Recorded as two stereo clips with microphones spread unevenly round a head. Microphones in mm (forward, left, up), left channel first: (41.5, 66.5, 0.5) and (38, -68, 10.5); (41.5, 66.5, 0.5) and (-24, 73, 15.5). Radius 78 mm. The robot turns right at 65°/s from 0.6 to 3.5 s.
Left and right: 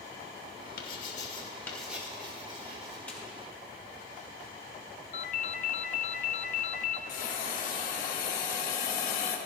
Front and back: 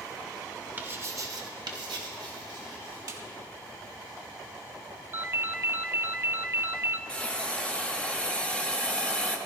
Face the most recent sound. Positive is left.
turn(degrees=70)